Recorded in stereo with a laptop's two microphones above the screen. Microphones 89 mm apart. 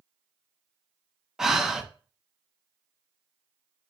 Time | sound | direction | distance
1.4 | breathing | 5° right (ahead or behind) | 0.5 m